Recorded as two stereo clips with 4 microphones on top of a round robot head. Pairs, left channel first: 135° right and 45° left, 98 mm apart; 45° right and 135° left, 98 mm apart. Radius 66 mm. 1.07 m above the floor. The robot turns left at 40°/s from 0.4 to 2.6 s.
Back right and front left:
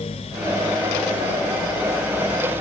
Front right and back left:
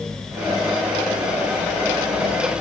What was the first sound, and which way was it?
Only background noise.